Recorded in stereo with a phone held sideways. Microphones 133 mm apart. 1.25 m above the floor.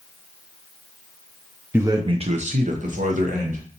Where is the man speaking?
15° right (ahead or behind), 0.6 m; by 3.6 s 70° right (ahead or behind), 1.6 m.